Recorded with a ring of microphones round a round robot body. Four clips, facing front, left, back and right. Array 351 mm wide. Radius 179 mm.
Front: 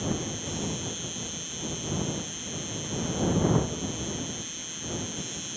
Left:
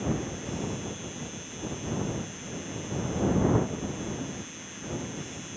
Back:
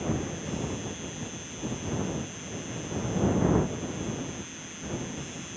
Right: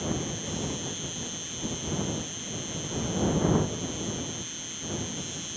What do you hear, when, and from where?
0.0 s an insect: 45° right